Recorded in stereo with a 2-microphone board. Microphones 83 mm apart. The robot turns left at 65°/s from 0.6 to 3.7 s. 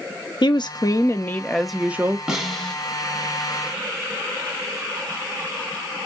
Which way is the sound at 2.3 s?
5° right (ahead or behind).